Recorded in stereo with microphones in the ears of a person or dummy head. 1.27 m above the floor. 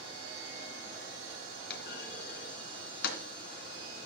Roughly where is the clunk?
Left.